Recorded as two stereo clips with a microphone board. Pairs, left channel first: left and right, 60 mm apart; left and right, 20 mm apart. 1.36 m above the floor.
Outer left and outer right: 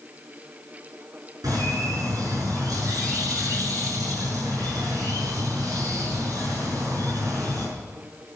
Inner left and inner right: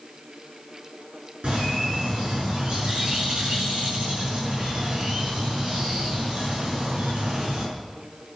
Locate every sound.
1.4 s a bird: 80° right, 6 m